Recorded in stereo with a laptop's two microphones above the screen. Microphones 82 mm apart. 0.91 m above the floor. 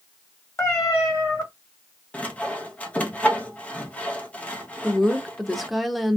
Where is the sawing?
15° left (ahead or behind), 0.8 m.